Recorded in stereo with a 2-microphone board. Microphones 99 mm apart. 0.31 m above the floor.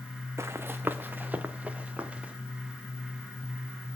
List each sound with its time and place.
0.4 s running footsteps: 25° right (ahead or behind), 1.0 m; by 2.3 s 10° right (ahead or behind), 2.5 m